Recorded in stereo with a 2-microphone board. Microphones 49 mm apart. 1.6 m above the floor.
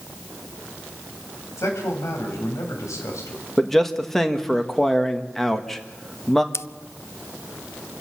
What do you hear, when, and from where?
1.6 s a man speaking: 85° left, 8 m; by 3.5 s 75° left (ahead or behind), 7.5 m
3.6 s a man speaking: 5° left (ahead or behind), 1.6 m
6.5 s scissors: 60° left (ahead or behind), 0.6 m